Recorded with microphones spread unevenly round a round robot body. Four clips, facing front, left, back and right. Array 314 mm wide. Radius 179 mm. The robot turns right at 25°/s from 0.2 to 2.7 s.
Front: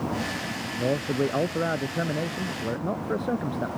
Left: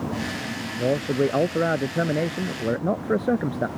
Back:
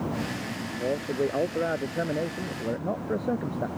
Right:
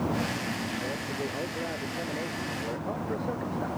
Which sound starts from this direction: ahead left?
A man speaking, at 0.8 s.